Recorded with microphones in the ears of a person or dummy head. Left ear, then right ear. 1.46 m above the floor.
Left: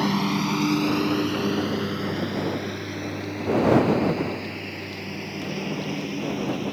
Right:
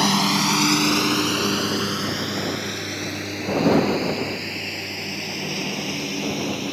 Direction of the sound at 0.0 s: 40° right (ahead or behind).